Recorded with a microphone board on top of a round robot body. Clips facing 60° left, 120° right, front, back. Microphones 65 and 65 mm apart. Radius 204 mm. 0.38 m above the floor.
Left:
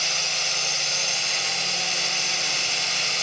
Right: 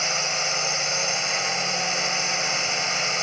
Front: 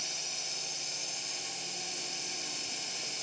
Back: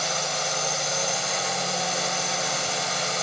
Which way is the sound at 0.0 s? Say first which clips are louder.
Right 3 dB, back 17 dB; 175° left.